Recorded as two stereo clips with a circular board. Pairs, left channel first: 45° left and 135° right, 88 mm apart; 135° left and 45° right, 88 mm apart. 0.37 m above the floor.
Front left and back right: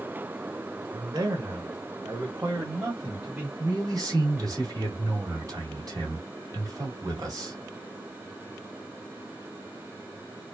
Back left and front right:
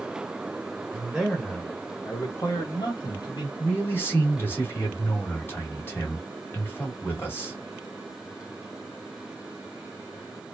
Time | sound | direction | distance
0.9 | a man speaking | 115° right | 1.3 m
3.6 | a man speaking | 170° right | 2.5 m